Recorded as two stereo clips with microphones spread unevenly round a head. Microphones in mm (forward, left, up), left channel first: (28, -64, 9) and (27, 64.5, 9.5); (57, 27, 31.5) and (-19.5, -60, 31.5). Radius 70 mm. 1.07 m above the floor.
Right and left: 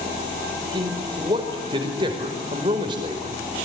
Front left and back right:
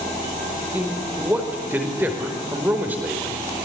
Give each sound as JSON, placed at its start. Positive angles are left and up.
{"t": 0.7, "sound": "a man speaking", "azimuth_deg": 150, "distance_m": 5.0}